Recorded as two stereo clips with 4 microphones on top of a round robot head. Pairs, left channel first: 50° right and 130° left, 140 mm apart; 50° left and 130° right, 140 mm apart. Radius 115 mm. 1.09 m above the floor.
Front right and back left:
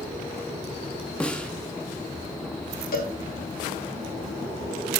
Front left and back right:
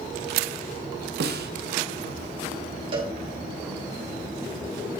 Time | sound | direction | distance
1.2 | a snare drum | 135° right | 0.9 m
2.9 | a cowbell | 75° right | 3 m